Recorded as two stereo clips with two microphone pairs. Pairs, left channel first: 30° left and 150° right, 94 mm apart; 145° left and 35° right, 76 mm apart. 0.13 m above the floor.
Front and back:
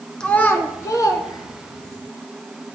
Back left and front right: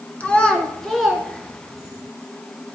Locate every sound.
0.2 s a child speaking: 100° left, 0.8 m; by 2.0 s 40° left, 1.4 m